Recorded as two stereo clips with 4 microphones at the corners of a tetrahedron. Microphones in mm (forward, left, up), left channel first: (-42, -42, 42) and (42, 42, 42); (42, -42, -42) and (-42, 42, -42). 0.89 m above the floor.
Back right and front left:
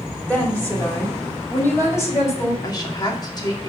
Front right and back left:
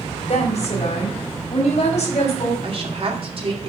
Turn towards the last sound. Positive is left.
turn(degrees=170)